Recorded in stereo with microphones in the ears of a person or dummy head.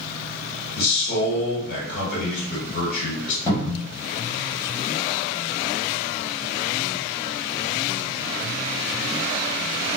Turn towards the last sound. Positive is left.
turn(degrees=25)  # may be behind; listen again after turning